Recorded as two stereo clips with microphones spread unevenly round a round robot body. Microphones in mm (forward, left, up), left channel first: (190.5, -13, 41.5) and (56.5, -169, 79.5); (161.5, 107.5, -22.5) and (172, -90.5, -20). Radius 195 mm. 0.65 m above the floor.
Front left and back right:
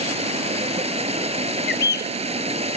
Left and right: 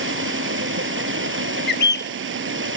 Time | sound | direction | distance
0.0 | running water | 70° right | ?
1.7 | a bird | 65° left | ?